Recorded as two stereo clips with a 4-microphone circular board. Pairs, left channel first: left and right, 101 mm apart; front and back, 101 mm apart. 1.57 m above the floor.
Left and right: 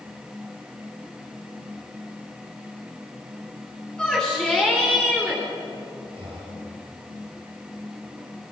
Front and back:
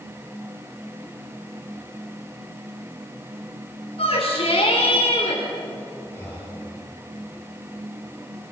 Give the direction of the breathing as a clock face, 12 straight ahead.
2 o'clock.